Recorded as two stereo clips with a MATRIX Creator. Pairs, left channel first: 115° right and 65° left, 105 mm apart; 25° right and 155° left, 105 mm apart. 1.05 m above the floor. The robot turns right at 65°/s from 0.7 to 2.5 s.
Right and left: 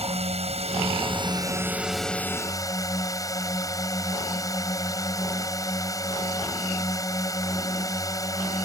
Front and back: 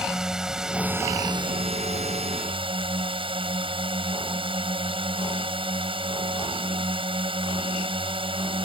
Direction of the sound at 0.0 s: 75° left.